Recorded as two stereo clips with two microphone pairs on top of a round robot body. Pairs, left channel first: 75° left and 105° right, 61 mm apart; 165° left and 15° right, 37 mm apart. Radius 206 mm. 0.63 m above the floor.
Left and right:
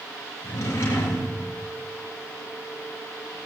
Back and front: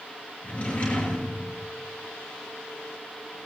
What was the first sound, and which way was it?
A drawer, 115° left.